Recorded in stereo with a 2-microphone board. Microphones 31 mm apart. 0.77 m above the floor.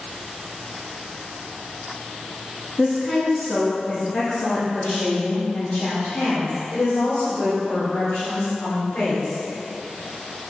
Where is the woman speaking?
5° left (ahead or behind), 1.4 m; by 9.4 s 60° left (ahead or behind), 5 m.